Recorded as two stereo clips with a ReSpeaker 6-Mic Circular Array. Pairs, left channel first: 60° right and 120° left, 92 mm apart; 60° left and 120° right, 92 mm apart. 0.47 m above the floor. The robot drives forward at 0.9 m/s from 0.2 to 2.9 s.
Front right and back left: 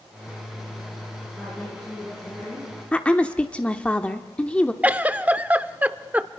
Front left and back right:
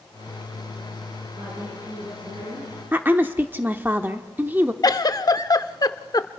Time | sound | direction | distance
1.4 | a woman speaking | 135° right | 9 m
2.9 | a woman speaking | 110° right | 1.0 m
4.8 | a giggle | 55° left | 0.6 m